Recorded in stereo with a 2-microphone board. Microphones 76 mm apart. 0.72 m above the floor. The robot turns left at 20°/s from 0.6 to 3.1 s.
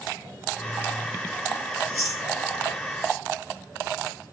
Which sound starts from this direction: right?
Chewing, at 1.8 s.